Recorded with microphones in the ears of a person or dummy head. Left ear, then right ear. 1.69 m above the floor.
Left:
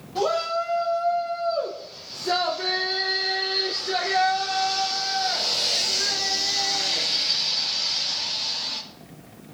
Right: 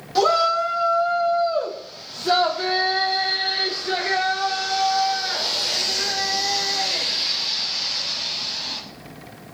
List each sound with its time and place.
0.1 s a shout: 70° right (ahead or behind), 2 m; by 8.8 s 40° right (ahead or behind), 7 m